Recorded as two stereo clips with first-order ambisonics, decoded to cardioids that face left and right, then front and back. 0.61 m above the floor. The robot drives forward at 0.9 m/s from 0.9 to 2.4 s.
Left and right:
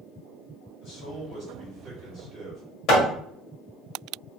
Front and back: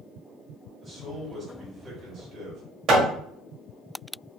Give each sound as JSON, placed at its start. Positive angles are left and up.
{"t": 0.8, "sound": "a man speaking", "azimuth_deg": 95, "distance_m": 1.4}
{"t": 2.9, "sound": "hammering", "azimuth_deg": 135, "distance_m": 1.2}